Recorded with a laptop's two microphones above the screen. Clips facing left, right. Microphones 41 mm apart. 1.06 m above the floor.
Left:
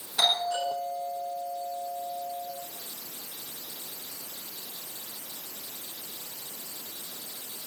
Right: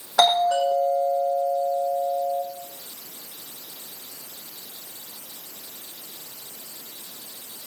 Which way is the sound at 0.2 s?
85° right.